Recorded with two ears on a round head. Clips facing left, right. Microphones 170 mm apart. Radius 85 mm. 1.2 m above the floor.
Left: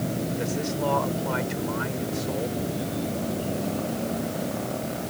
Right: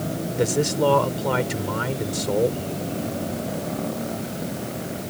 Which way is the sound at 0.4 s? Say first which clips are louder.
Right 11 dB; 60° right (ahead or behind).